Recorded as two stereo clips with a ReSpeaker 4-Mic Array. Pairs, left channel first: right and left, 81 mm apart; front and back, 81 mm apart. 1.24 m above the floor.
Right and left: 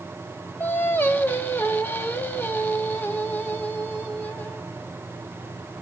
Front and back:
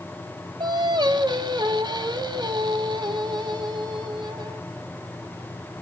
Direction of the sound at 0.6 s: 155° right.